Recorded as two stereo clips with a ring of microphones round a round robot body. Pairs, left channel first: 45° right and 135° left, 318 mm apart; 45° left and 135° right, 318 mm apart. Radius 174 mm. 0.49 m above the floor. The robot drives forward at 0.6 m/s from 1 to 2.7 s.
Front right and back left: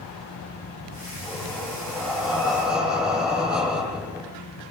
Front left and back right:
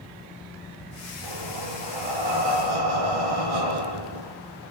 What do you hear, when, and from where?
1.2 s breathing: 135° right, 9.5 m; by 4.3 s 140° right, 10 m